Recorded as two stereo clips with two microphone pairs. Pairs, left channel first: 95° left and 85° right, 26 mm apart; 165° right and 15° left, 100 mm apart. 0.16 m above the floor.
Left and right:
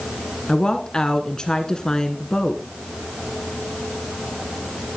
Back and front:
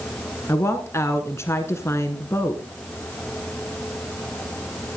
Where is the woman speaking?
145° left, 1.4 m.